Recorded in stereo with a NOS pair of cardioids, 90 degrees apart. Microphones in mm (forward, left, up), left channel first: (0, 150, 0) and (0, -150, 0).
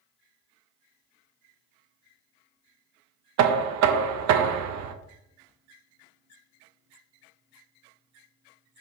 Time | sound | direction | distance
3.4 | knocking | 70° right | 0.5 m